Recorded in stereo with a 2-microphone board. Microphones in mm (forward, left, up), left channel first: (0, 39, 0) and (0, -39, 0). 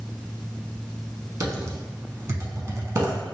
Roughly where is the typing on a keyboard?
Right.